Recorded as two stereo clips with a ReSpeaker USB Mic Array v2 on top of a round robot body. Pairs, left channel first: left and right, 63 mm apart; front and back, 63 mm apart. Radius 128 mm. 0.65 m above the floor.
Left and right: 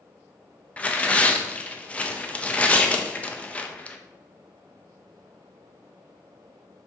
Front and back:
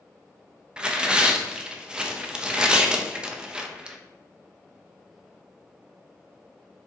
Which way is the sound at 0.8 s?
125° left.